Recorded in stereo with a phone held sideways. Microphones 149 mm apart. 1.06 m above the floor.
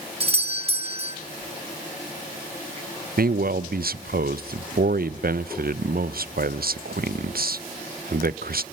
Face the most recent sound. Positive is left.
turn(degrees=-75)  # may be behind; listen again after turning